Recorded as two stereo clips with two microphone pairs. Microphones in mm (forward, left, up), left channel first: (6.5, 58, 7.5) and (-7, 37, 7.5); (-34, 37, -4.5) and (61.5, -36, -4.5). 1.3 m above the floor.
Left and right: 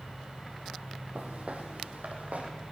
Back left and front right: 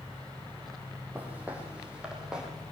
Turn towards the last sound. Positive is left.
turn(degrees=-120)